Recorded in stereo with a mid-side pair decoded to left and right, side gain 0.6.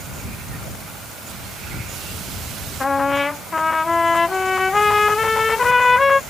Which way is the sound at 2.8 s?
15° left.